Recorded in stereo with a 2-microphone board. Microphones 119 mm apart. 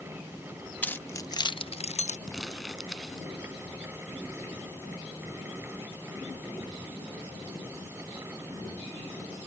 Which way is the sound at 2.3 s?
Centre (ahead or behind).